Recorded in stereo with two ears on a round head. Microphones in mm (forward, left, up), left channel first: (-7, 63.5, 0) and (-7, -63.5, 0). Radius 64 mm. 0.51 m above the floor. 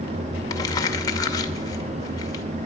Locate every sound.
0.5 s crumpling: 30° left (ahead or behind), 1.9 m